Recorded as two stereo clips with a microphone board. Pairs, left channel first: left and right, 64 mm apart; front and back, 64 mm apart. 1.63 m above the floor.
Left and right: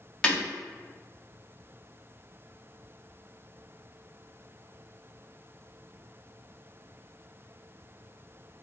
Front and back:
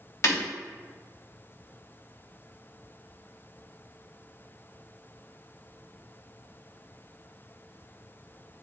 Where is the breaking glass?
15° left, 1.6 m.